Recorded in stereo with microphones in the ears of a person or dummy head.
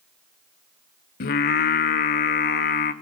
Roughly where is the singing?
Left.